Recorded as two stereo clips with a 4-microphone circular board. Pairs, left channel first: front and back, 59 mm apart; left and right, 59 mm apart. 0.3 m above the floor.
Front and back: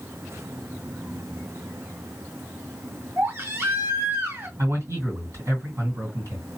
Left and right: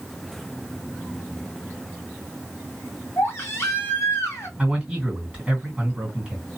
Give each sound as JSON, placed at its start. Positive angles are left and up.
{"t": 3.2, "sound": "a baby crying", "azimuth_deg": 135, "distance_m": 2.0}
{"t": 4.6, "sound": "a man speaking", "azimuth_deg": -165, "distance_m": 2.5}